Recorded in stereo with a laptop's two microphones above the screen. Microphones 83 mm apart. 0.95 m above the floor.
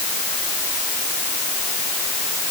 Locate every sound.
Only background noise.